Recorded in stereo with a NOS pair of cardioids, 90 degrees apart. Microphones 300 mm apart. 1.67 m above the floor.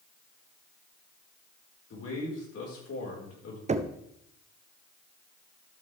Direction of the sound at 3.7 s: 25° right.